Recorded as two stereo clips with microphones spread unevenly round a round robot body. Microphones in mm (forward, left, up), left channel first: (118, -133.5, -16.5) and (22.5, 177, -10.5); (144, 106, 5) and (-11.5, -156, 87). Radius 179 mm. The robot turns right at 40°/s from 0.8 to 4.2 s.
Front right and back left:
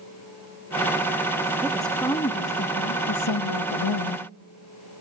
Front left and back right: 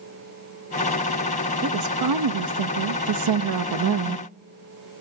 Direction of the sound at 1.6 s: 170° right.